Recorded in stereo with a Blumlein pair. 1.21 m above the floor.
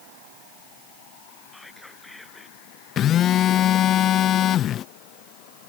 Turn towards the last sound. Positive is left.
turn(degrees=30)